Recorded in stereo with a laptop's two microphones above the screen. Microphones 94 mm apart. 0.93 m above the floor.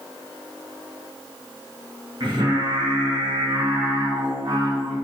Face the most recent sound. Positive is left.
turn(degrees=-55)  # may be behind; listen again after turning